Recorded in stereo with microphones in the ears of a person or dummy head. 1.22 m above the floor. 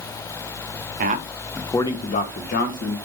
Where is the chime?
I don't hear a chime.